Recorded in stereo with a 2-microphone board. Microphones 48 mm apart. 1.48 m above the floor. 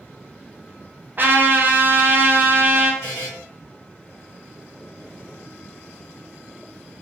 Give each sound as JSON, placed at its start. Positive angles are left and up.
{"t": 1.2, "sound": "a trumpet", "side_deg": -40, "distance_m": 0.6}
{"t": 3.0, "sound": "a buzzer", "side_deg": 55, "distance_m": 1.9}